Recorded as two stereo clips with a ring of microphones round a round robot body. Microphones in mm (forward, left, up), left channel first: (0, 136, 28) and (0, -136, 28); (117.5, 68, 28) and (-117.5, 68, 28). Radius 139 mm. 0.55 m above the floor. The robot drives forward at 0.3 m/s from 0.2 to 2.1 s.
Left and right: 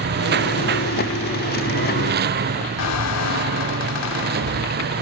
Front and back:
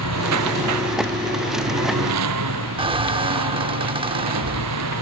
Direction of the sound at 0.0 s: 145° right.